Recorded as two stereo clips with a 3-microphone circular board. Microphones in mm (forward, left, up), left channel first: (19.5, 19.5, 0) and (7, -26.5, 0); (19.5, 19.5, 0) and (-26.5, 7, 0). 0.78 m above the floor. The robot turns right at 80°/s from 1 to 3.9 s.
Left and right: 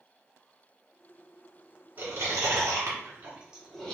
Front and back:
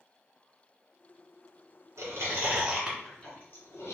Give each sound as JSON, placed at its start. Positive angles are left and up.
{"t": 2.0, "sound": "chewing", "azimuth_deg": -155, "distance_m": 1.9}